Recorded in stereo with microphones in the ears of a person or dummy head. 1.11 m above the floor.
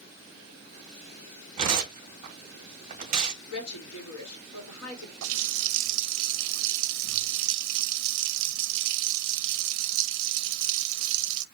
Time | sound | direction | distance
1.6 | tearing paper | 40° right (ahead or behind) | 2.0 m
3.5 | a woman speaking | 85° left | 2 m
5.2 | a running tap | 65° right (ahead or behind) | 0.6 m